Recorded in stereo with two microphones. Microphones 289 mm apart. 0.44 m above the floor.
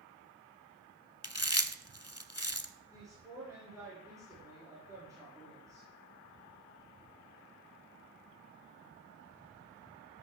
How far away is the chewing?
About 0.8 m.